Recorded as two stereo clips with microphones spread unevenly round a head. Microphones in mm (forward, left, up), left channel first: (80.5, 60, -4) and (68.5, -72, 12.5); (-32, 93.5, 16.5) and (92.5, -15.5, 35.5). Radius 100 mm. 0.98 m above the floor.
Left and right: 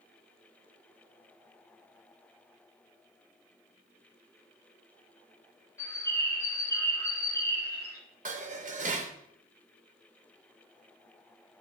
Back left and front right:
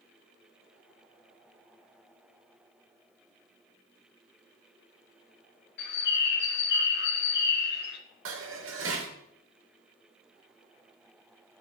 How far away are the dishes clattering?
About 0.9 m.